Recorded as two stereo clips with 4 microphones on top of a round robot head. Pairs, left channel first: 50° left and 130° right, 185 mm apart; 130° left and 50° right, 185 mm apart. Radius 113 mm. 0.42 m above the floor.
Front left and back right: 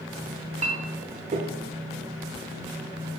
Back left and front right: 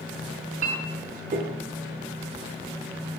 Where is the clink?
85° right, 0.7 m.